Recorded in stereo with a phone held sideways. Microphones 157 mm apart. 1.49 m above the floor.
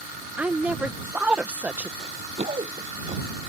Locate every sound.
0.4 s a woman speaking: 10° right (ahead or behind)
2.0 s running footsteps: 45° right (ahead or behind); by 3.2 s 35° right (ahead or behind)